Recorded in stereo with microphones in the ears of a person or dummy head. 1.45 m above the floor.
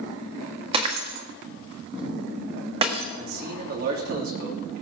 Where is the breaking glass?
30° right (ahead or behind), 1.5 m.